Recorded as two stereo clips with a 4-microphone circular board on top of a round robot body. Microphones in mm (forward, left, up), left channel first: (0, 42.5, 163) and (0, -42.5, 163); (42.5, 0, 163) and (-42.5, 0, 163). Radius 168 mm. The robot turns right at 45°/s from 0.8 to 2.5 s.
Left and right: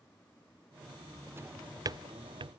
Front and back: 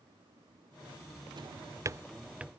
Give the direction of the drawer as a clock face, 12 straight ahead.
5 o'clock.